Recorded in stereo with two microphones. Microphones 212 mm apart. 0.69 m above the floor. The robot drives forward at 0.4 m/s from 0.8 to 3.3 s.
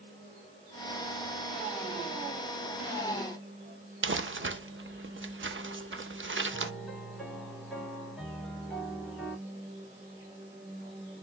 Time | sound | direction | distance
4.0 | crumpling | 60° right (ahead or behind) | 0.5 m
6.5 | a piano | centre (ahead or behind) | 2.5 m